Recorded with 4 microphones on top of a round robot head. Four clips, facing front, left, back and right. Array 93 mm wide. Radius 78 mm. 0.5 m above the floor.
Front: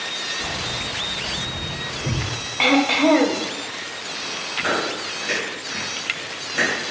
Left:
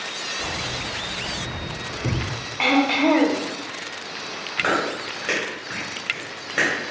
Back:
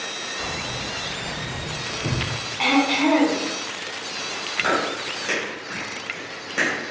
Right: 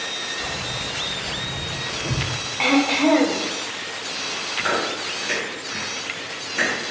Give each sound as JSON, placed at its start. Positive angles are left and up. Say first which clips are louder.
{"t": 0.4, "sound": "keys jangling", "louder": "left 2 dB, even", "azimuth_deg": 160, "distance_m": 1.5}
{"t": 2.6, "sound": "throat clearing", "louder": "even, front 2 dB", "azimuth_deg": 5, "distance_m": 0.7}
{"t": 4.6, "sound": "chewing", "louder": "left 1 dB, back 1 dB", "azimuth_deg": 110, "distance_m": 2.0}